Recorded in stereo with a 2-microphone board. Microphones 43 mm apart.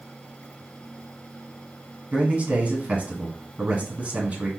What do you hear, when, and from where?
2.1 s a man speaking: 35° right (ahead or behind), 1.7 m